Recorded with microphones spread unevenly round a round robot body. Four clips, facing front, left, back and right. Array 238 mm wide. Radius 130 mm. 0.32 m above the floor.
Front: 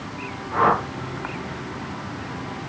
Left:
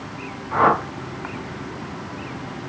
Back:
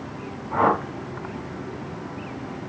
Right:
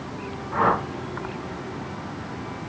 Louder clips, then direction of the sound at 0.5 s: Left 4 dB, front 1 dB; 145° left.